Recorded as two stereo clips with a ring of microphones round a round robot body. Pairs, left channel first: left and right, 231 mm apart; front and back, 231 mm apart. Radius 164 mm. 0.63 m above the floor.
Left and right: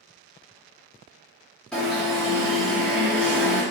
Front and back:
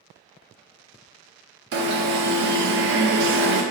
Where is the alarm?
175° left, 0.6 m.